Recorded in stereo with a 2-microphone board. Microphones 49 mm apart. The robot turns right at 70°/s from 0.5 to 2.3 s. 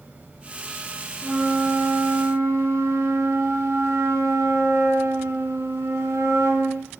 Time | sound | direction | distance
1.2 | a flute | 165° right | 1.9 m